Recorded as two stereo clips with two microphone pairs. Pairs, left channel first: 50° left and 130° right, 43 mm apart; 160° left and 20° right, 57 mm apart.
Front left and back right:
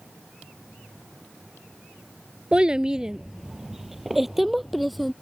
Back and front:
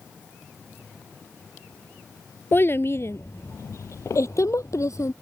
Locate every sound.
2.5 s a child speaking: straight behind; by 5.1 s 140° left